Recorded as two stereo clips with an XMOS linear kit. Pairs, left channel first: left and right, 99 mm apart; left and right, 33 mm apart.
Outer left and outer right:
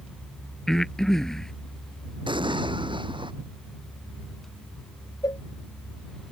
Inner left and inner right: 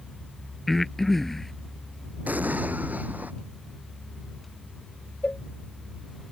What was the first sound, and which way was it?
Breathing, 5° left (ahead or behind).